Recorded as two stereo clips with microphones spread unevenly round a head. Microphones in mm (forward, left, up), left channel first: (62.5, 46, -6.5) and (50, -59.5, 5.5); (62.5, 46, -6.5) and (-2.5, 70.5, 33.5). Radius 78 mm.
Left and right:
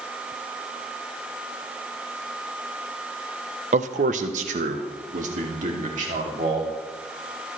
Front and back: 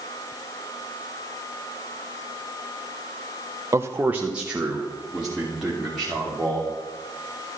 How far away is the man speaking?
About 0.6 m.